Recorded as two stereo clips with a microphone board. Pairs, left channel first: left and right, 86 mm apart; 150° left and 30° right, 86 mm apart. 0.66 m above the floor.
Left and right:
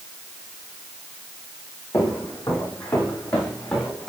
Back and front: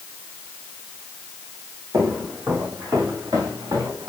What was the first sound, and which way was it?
Footsteps, 35° left.